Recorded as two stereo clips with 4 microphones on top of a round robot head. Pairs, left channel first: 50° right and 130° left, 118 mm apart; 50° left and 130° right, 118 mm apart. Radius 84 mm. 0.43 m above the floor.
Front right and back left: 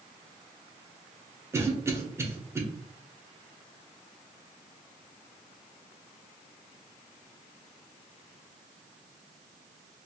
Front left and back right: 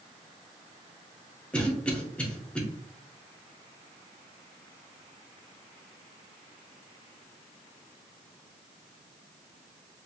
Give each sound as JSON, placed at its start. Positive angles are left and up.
{"t": 1.5, "sound": "a cough", "azimuth_deg": 115, "distance_m": 0.8}